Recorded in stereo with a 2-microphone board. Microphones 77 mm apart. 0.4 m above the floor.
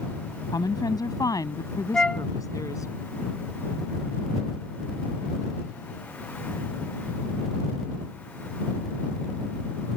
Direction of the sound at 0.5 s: 70° left (ahead or behind).